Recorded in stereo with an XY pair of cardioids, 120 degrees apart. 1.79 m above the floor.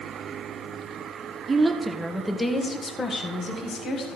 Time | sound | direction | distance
1.5 | a woman speaking | 20° right | 1.6 m